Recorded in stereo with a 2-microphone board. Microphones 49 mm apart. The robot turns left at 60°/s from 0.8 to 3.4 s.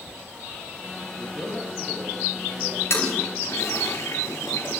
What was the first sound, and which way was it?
A man speaking, 55° left.